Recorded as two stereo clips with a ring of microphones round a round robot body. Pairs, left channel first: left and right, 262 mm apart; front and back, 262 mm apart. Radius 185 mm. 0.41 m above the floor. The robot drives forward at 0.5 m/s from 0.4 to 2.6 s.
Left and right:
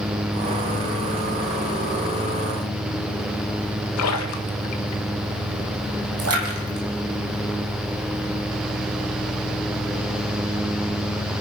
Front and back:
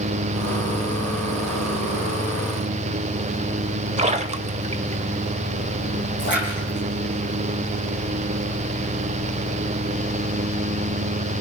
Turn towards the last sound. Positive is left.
turn(degrees=-60)